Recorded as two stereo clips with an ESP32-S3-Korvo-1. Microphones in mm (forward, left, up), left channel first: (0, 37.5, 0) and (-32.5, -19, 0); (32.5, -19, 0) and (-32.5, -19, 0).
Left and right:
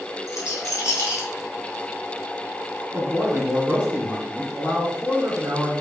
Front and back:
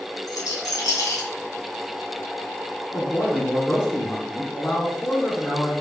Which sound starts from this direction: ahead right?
A man speaking, at 2.9 s.